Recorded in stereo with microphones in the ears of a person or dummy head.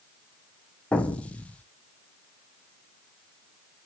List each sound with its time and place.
0.9 s an explosion: 10° left (ahead or behind), 0.6 m